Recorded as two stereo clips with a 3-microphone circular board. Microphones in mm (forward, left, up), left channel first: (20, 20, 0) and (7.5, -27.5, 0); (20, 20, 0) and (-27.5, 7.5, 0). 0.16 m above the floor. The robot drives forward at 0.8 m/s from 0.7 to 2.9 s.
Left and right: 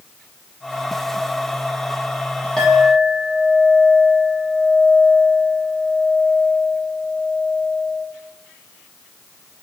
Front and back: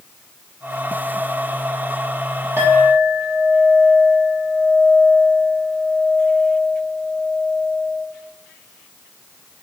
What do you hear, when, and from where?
2.6 s a clink: 160° left, 4 m